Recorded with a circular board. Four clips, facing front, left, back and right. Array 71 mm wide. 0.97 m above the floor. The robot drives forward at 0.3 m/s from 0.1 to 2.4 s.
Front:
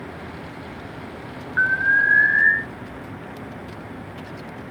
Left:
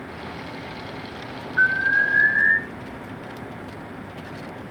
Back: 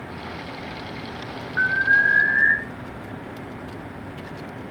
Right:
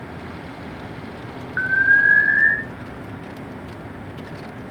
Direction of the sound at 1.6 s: 70° right.